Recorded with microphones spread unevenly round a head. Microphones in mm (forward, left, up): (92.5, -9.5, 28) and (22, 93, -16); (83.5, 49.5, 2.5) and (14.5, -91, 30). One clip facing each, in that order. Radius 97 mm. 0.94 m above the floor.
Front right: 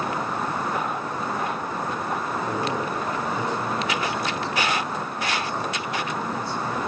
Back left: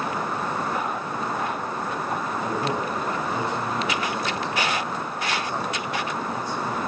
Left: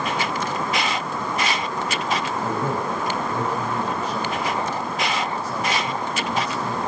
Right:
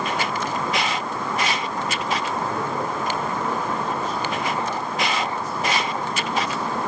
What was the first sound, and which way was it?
A man speaking, 55° left.